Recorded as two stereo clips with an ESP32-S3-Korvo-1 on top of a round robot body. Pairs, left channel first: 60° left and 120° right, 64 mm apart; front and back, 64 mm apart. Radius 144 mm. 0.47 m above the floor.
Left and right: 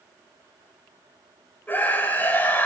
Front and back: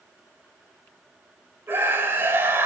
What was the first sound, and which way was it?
A scream, 130° left.